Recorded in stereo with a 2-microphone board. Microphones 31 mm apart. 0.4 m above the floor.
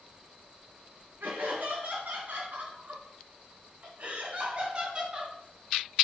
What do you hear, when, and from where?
1.2 s laughter: 70° right (ahead or behind), 3.5 m; by 5.3 s 25° right (ahead or behind), 2.5 m